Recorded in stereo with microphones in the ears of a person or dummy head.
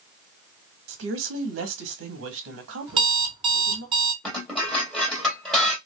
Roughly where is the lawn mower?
I don't hear a lawn mower.